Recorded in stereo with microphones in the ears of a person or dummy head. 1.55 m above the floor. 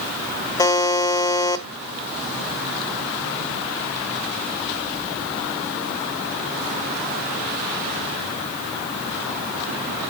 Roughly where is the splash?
I don't hear a splash.